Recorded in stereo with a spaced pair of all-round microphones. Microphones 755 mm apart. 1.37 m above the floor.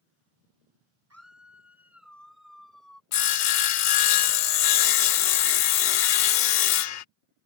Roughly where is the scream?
Centre.